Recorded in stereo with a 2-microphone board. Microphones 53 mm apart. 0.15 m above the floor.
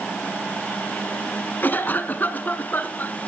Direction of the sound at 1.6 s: 35° left (ahead or behind).